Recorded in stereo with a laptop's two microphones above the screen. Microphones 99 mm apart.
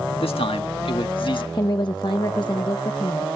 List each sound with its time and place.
0.2 s a man speaking: 75° left (ahead or behind); by 1.4 s 55° left (ahead or behind)
1.5 s a woman speaking: 50° left (ahead or behind)